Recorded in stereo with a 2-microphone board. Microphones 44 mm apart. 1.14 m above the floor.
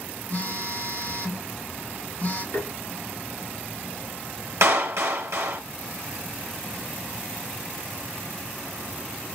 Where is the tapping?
80° left, 1.4 m.